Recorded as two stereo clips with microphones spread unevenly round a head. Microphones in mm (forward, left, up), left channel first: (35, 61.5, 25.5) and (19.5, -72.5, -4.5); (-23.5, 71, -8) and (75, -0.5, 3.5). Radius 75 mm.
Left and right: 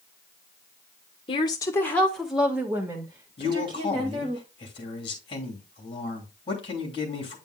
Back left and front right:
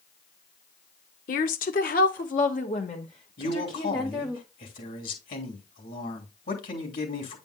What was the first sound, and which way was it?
A woman speaking, 145° left.